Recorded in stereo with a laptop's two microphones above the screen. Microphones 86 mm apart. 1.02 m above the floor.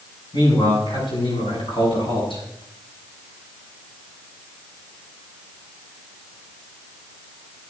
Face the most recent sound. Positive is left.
turn(degrees=70)  # may be behind; listen again after turning